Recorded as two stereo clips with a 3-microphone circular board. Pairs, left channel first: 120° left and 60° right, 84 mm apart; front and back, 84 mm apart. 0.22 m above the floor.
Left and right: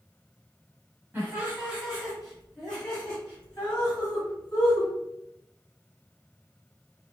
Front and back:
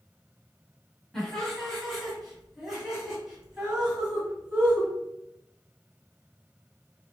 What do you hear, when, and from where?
1.1 s laughter: 70° right, 1.7 m; by 4.9 s 120° left, 2 m